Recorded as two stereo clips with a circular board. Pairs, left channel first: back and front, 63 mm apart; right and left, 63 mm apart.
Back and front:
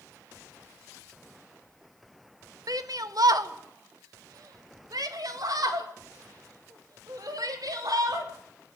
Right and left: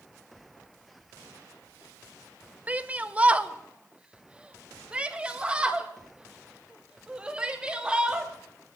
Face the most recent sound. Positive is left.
turn(degrees=15)